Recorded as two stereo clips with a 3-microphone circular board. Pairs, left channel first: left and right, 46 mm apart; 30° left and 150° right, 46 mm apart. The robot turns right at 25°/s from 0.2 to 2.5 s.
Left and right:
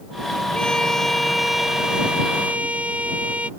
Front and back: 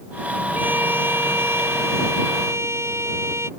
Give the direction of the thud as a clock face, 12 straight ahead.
I don't hear a thud.